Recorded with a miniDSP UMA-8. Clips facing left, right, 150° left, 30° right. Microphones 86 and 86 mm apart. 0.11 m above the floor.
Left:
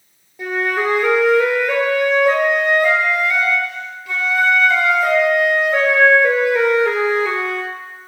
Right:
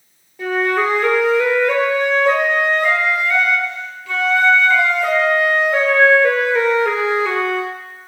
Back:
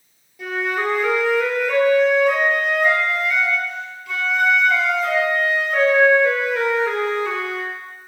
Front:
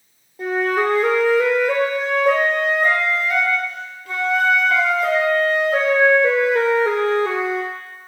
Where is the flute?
10° left, 1.4 m.